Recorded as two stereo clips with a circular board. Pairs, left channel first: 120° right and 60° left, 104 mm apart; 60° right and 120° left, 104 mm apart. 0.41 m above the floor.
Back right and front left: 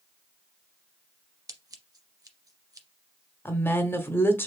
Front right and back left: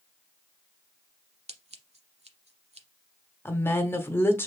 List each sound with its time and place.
1.5 s scissors: 115° left, 0.8 m
3.5 s a woman speaking: 90° right, 0.9 m